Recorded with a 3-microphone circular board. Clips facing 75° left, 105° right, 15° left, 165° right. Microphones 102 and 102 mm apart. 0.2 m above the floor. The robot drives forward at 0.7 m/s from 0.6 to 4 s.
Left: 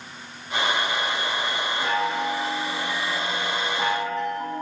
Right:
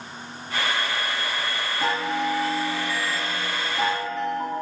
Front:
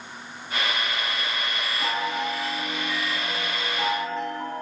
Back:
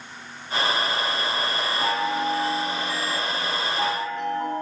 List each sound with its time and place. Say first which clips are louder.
1.8 s a chime: right 1 dB, back 3 dB; 115° right, 3.5 m; by 4.6 s 135° right, 4.5 m